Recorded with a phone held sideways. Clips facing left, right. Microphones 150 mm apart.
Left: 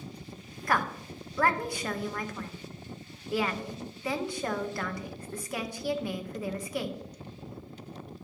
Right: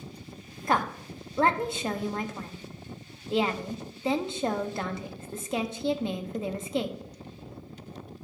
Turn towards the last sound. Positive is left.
turn(degrees=-25)  # may be behind; listen again after turning